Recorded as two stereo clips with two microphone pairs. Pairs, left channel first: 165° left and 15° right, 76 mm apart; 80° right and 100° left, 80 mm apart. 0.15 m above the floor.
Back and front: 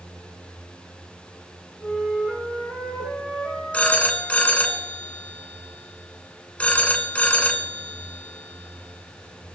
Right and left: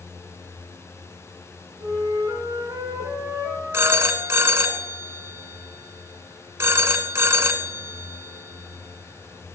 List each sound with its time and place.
1.8 s a flute: 65° left, 5 m
3.7 s a phone ringing: 115° left, 1.1 m